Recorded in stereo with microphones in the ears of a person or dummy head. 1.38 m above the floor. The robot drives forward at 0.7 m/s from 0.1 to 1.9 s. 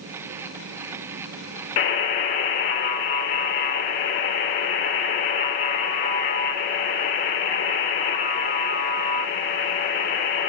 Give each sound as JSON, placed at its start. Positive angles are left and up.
{"t": 1.8, "sound": "a buzzer", "side_deg": 35, "distance_m": 1.2}